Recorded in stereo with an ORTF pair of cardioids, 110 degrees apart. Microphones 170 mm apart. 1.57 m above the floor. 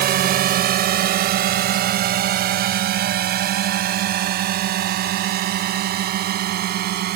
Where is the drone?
60° right; by 7.2 s 65° right.